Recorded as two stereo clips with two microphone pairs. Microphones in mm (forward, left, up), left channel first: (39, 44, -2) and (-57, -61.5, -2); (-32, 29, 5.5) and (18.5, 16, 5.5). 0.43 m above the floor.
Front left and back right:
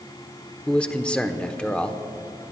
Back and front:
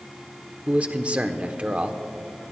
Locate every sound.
0.7 s a man speaking: 25° right, 0.8 m